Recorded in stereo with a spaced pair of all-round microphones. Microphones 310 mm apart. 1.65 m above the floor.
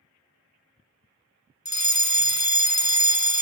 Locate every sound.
1.6 s a fire alarm: 60° left (ahead or behind), 0.8 m